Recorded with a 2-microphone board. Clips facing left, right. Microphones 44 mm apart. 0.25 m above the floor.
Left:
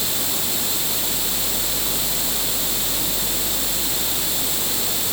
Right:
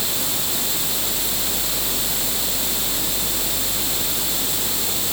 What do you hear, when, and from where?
Only background noise.